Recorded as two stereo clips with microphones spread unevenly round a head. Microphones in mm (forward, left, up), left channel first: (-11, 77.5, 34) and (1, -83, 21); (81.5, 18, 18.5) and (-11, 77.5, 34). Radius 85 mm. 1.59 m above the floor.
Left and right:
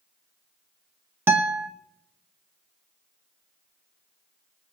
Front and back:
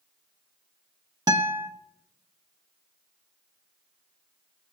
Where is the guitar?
165° right, 1.0 m.